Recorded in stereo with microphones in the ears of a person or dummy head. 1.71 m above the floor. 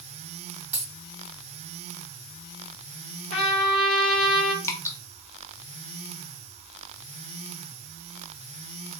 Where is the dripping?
20° left (ahead or behind), 0.5 m.